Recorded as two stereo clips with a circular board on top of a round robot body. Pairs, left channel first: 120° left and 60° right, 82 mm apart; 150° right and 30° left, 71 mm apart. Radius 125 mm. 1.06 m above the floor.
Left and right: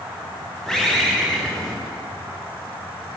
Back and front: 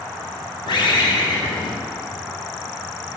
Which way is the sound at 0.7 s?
155° right.